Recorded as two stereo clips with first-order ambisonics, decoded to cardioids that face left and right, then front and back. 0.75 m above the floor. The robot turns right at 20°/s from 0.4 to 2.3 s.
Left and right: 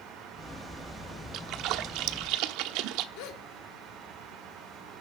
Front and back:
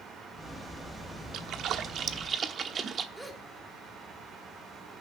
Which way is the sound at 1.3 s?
135° right.